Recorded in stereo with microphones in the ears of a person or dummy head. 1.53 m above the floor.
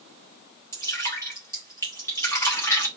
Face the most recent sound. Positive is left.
turn(degrees=15)  # may be behind; listen again after turning